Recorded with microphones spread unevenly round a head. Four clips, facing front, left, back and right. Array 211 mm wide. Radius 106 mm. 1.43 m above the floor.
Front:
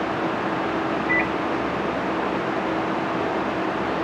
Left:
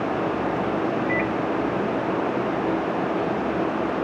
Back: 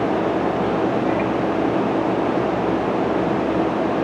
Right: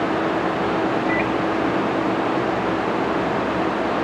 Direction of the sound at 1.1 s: 30° left.